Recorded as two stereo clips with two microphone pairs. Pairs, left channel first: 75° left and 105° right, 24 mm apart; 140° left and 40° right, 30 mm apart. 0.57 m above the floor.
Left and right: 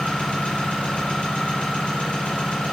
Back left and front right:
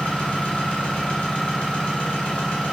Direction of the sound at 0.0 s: 95° left.